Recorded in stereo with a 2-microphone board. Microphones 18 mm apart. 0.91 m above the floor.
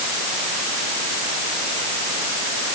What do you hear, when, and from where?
Only background noise.